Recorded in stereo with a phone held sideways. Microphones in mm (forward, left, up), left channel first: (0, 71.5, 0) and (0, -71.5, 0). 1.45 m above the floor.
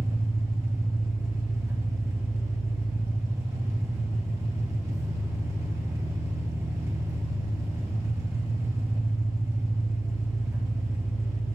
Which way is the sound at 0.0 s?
20° right (ahead or behind).